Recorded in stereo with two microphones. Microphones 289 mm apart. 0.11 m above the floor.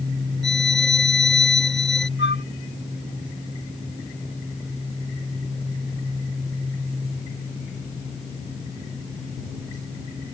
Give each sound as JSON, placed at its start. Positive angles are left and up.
{"t": 0.4, "sound": "a violin", "side_deg": 40}
{"t": 2.2, "sound": "a flute", "side_deg": 40}